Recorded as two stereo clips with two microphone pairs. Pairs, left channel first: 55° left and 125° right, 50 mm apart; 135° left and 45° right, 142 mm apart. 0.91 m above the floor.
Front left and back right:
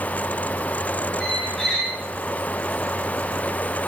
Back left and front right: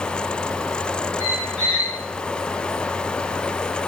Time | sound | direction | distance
1.2 | a squeak | 25° right | 1.2 m